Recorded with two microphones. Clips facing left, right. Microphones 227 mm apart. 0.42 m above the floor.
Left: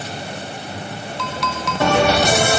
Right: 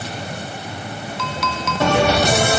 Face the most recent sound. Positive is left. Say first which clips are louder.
# even
turn(degrees=0)  # may be behind; listen again after turning